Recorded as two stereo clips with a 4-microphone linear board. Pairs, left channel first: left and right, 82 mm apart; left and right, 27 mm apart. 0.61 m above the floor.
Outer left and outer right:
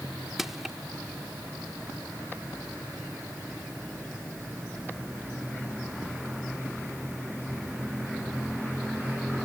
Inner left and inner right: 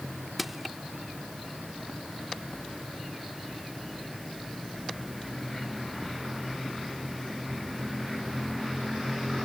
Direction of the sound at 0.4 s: 5° right (ahead or behind).